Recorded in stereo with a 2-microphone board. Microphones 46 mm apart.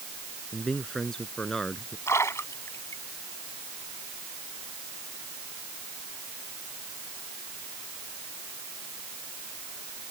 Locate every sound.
0.5 s a man speaking: 15° left (ahead or behind)
2.1 s a splash: 75° left (ahead or behind)